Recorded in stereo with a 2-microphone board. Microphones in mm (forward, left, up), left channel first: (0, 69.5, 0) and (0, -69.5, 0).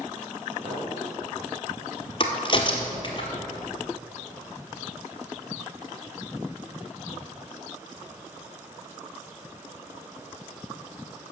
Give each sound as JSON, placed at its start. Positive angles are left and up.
{"t": 0.6, "sound": "a clink", "side_deg": -60, "distance_m": 3.0}
{"t": 2.2, "sound": "a crack", "side_deg": 35, "distance_m": 1.4}